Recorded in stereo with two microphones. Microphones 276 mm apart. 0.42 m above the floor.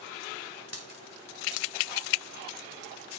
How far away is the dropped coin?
About 1.5 m.